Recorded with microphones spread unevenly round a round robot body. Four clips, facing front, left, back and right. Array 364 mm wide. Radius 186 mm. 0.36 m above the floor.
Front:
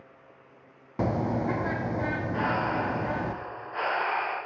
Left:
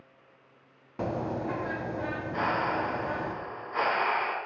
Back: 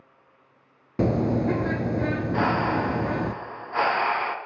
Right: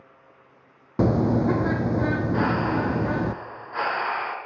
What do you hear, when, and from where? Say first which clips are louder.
1.0 s a bird: right 10 dB, back 5 dB; 120° right, 1.1 m
2.3 s breathing: right 1 dB, back 4 dB; 175° right, 3.5 m